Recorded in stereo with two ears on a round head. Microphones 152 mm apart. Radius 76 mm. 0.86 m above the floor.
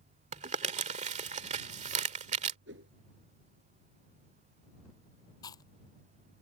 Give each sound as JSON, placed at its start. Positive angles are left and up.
{"t": 0.3, "sound": "crumpling", "side_deg": -45}
{"t": 2.7, "sound": "a whoosh", "side_deg": -80}
{"t": 5.4, "sound": "chewing", "side_deg": 25}